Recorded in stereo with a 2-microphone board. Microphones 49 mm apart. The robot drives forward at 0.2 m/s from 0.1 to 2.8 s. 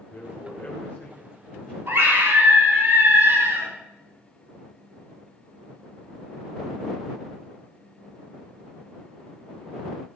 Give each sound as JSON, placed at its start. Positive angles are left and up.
{"t": 0.1, "sound": "a man speaking", "side_deg": 40, "distance_m": 2.5}
{"t": 1.9, "sound": "a scream", "side_deg": -50, "distance_m": 5.5}